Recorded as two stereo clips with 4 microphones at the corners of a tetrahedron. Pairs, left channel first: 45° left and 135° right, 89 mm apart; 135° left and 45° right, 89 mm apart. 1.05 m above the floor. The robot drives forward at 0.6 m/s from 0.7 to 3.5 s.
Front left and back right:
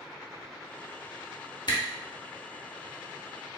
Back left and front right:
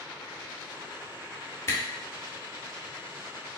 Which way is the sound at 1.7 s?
75° left.